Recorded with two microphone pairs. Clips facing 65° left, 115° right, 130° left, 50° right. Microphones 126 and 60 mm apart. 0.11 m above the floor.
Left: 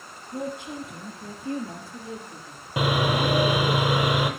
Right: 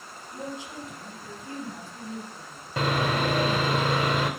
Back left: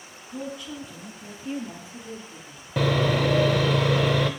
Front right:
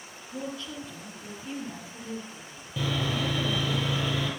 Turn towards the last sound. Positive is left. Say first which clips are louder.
# left 2 dB, back left 7 dB
turn(degrees=140)